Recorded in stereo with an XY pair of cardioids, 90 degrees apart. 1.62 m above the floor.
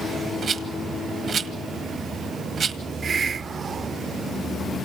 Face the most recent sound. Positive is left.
turn(degrees=-50)